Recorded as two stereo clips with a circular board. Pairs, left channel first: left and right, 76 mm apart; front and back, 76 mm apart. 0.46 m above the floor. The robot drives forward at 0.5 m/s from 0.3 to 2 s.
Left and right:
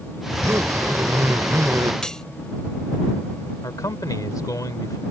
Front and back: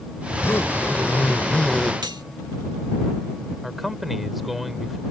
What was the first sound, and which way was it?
A zipper, 50° right.